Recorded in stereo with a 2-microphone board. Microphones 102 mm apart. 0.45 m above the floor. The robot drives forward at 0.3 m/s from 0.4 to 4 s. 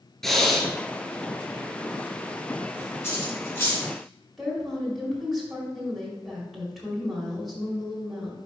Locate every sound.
0.2 s breathing: centre (ahead or behind), 1.2 m
3.0 s cutlery clinking: 25° left (ahead or behind), 2.5 m
4.4 s a woman speaking: centre (ahead or behind), 2 m